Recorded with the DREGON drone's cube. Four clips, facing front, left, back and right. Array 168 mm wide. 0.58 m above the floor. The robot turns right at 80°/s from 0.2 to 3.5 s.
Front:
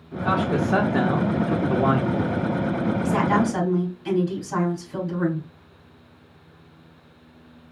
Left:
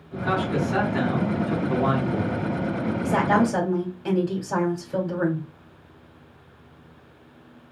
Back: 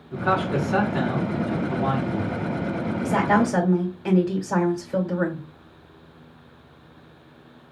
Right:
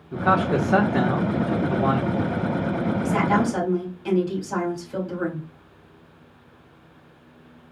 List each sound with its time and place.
0.1 s a man speaking: 95° right, 1.2 m; by 2.4 s 85° left, 1.2 m
3.0 s a woman speaking: 125° left, 2.5 m; by 5.5 s 165° left, 2.5 m